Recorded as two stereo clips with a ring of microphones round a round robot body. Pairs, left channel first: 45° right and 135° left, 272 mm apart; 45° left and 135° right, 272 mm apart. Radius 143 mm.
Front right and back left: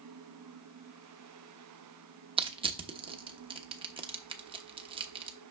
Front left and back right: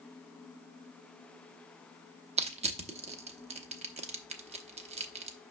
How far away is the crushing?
About 1.0 m.